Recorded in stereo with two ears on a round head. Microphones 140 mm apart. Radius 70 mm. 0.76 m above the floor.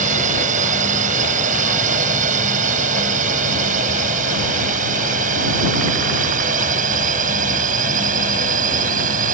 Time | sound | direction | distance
0.0 | a drone | 50° right (ahead or behind) | ?